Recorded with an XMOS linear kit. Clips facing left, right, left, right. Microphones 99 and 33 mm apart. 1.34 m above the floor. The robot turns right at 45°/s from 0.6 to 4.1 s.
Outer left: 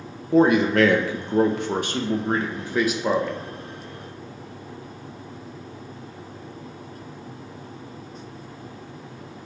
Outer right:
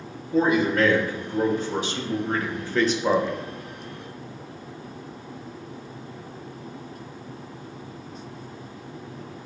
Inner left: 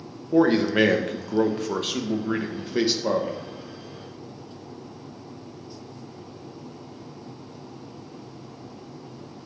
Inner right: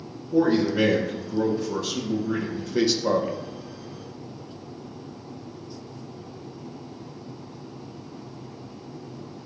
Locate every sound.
0.3 s a man speaking: 70° left, 0.9 m; by 3.4 s 165° right, 0.9 m